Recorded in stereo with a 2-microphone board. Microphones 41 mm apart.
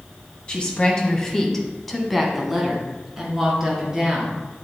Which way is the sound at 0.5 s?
25° left (ahead or behind).